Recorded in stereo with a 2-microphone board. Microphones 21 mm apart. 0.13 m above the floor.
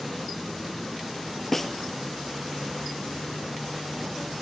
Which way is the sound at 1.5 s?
10° left (ahead or behind).